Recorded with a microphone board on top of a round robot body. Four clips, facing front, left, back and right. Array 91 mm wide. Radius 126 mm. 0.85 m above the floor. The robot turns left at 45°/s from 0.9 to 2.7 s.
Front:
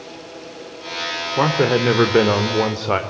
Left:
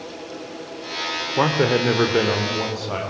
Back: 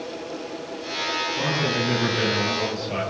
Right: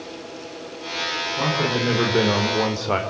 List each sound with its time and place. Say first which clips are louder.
1.4 s a man speaking: left 5 dB, front 11 dB; 45° left, 3.5 m; by 3.0 s 15° right, 3.5 m